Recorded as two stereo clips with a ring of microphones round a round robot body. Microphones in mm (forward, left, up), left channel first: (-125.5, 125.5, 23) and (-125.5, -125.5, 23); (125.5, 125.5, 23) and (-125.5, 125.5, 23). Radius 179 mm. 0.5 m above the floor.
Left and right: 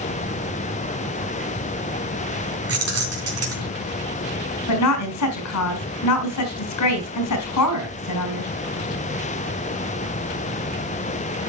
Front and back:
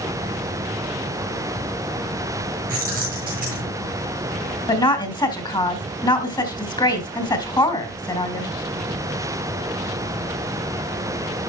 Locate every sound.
2.7 s keys jangling: 115° right, 3.5 m
4.7 s a woman speaking: 75° left, 3 m